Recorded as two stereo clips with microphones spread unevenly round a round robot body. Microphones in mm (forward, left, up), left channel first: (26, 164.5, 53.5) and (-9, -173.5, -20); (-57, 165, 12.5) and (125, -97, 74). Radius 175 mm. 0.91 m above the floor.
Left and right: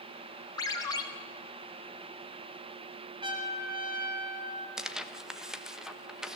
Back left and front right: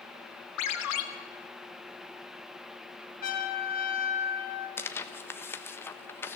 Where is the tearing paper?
170° right, 1.1 m.